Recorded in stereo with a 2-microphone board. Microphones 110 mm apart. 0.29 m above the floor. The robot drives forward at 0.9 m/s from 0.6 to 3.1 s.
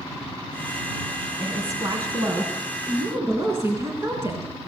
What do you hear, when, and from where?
1.4 s a woman speaking: 35° right (ahead or behind), 3 m; by 4.5 s 25° right (ahead or behind), 4.5 m